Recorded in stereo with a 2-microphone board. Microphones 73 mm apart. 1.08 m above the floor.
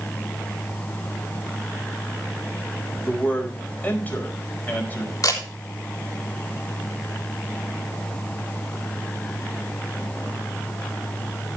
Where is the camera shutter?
60° left (ahead or behind), 3.5 m.